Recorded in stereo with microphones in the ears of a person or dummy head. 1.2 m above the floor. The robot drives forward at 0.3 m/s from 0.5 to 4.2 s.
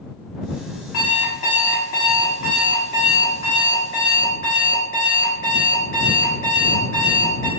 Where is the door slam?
I don't hear a door slam.